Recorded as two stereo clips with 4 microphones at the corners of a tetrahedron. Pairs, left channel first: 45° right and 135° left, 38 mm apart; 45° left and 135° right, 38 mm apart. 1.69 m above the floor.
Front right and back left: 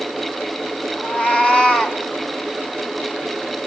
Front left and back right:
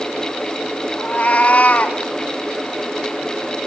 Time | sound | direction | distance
1.0 | a cat meowing | 5° right | 3 m